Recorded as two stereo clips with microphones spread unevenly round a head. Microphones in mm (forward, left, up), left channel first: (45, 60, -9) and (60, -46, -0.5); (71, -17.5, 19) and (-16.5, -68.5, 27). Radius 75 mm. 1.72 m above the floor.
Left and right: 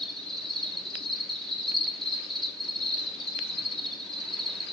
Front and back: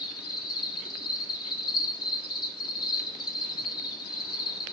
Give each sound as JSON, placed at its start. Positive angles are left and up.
{"t": 0.0, "sound": "an insect", "azimuth_deg": 20, "distance_m": 0.8}